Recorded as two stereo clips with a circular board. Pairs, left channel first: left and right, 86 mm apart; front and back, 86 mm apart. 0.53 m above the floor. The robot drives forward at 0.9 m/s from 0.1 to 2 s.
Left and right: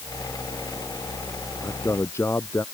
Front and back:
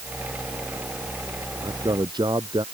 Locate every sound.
1.6 s a man speaking: 150° left